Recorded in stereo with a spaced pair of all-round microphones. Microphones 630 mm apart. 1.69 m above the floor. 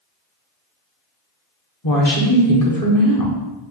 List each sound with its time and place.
1.8 s a woman speaking: 30° left (ahead or behind), 0.9 m